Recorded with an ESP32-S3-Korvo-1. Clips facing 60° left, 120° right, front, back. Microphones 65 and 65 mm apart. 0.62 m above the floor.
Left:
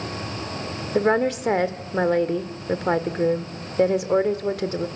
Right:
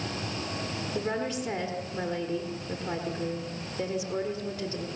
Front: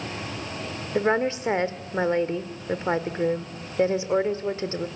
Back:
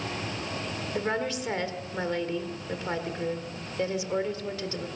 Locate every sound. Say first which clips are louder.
0.9 s a woman speaking: left 12 dB, front 7 dB; 60° left, 1.6 m